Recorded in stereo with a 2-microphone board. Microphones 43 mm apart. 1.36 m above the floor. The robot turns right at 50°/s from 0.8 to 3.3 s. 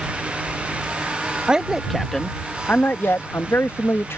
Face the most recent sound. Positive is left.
turn(degrees=70)